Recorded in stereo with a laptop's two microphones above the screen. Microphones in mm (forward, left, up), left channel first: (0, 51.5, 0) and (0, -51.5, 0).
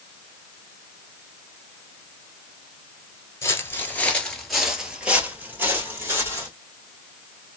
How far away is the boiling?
I don't hear boiling.